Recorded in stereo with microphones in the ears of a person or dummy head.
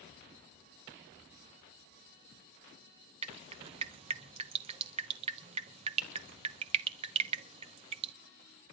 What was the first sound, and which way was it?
Dripping, 30° right (ahead or behind).